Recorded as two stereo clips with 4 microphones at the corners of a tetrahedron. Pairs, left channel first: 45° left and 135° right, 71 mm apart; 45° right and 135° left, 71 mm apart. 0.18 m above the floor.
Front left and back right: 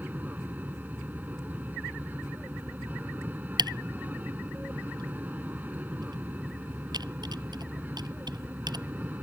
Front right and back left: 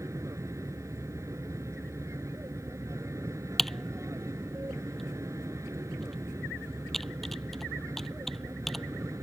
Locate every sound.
0.0 s an aircraft: 165° left
3.6 s typing on a keyboard: 130° right